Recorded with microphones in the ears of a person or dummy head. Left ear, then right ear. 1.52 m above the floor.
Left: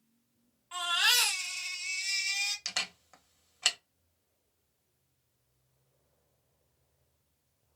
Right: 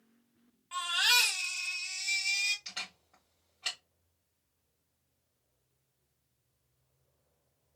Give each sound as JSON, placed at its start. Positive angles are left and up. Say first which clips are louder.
{"t": 0.7, "sound": "a baby crying", "louder": "even", "side_deg": -10, "distance_m": 1.4}
{"t": 2.6, "sound": "a camera shutter", "louder": "left 6 dB", "side_deg": 60, "distance_m": 0.9}